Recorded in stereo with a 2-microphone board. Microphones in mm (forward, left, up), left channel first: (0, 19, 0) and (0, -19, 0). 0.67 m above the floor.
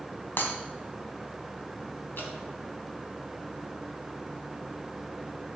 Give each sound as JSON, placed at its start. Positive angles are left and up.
{"t": 0.4, "sound": "breaking glass", "side_deg": 60, "distance_m": 2.5}
{"t": 2.2, "sound": "dripping", "side_deg": 65, "distance_m": 4.0}